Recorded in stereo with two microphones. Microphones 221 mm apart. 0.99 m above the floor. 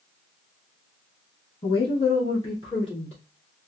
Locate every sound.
1.6 s a woman speaking: 25° left (ahead or behind), 1.4 m; by 3.2 s 30° left (ahead or behind), 3 m